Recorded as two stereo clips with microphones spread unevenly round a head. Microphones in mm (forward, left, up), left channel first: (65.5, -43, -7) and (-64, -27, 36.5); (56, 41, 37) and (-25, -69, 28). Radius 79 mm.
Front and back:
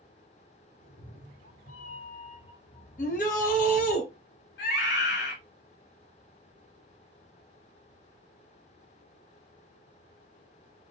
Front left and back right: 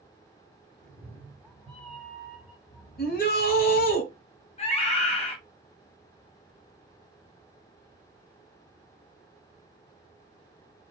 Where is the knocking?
No knocking in this recording.